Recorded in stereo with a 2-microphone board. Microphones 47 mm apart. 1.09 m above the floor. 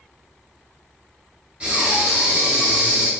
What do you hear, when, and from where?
1.6 s breathing: 25° right (ahead or behind), 1.2 m